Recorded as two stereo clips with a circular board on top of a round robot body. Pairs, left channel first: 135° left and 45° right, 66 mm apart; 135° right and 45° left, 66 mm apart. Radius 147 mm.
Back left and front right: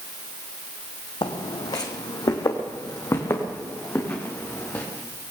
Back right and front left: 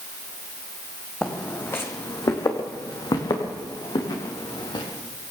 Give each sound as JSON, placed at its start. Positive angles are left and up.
{"t": 1.2, "sound": "footsteps", "azimuth_deg": 150, "distance_m": 1.7}